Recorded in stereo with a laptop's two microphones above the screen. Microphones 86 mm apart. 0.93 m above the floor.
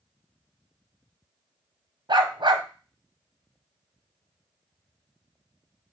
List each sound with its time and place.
2.1 s a dog barking: 65° right (ahead or behind), 0.8 m